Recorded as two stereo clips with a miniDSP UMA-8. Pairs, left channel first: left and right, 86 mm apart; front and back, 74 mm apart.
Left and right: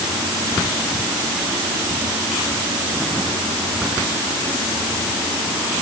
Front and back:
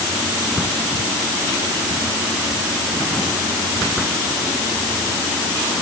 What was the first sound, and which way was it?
Only background noise.